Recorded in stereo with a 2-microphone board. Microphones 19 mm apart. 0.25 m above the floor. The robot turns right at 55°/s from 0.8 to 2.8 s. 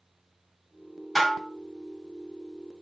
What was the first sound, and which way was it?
Dishes clattering, 10° left (ahead or behind).